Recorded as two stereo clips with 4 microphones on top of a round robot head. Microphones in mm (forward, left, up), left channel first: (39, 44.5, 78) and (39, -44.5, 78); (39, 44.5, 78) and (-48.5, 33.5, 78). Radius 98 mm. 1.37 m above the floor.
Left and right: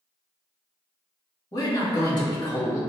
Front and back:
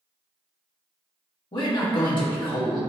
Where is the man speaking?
45° left, 1.7 m.